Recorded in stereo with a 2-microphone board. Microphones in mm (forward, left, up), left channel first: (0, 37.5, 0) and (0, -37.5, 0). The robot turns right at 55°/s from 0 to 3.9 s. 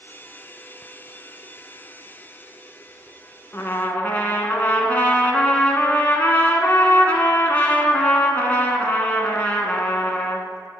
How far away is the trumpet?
About 0.7 m.